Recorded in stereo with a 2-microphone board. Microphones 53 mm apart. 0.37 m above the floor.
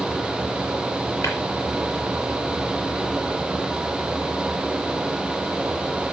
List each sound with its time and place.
1.2 s tapping: 65° left (ahead or behind), 5.5 m